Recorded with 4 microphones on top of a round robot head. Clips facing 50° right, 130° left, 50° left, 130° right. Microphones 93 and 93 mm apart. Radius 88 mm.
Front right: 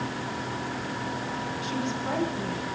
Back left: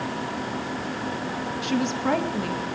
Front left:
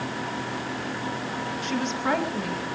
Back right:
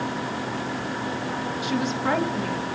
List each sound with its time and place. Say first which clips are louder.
1.6 s a woman speaking: back left 8 dB, back right 2 dB; 150° left, 1.6 m; by 2.6 s 135° left, 3 m